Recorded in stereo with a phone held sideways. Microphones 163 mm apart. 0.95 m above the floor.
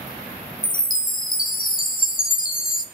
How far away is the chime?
About 0.6 m.